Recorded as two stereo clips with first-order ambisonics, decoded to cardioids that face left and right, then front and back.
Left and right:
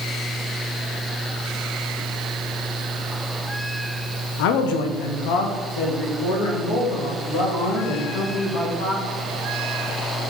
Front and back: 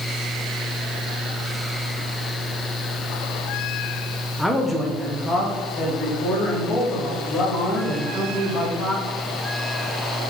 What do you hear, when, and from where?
4.4 s a man speaking: 90° left, 0.7 m; by 9.0 s 70° left, 3.5 m